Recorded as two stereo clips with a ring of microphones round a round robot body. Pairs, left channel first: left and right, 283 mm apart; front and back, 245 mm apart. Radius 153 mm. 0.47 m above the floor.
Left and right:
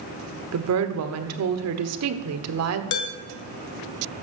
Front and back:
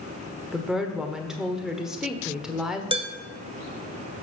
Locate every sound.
0.5 s a woman speaking: 95° right, 1.3 m
2.9 s dishes clattering: 110° left, 1.6 m